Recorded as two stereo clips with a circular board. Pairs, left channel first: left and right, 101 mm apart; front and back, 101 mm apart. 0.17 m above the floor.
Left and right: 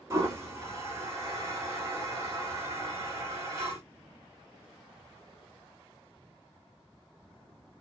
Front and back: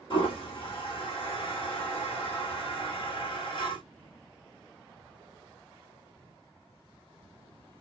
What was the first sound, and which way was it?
A toilet flushing, 35° right.